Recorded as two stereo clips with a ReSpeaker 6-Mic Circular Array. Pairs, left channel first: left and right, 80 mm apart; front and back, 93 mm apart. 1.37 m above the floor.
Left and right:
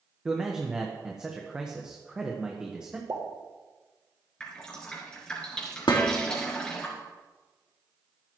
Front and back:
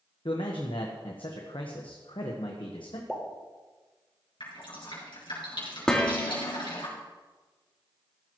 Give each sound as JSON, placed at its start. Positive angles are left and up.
{"t": 0.2, "sound": "a man speaking", "azimuth_deg": -10, "distance_m": 1.3}
{"t": 3.1, "sound": "a pop", "azimuth_deg": -75, "distance_m": 1.9}
{"t": 4.4, "sound": "dripping", "azimuth_deg": 10, "distance_m": 4.0}
{"t": 5.9, "sound": "dishes clattering", "azimuth_deg": 80, "distance_m": 2.0}